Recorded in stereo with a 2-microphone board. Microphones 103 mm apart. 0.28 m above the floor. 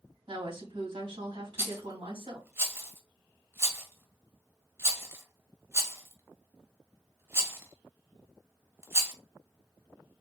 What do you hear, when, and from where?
0.3 s a woman speaking: 55° right (ahead or behind), 2 m
1.6 s a rattle: 25° right (ahead or behind), 0.9 m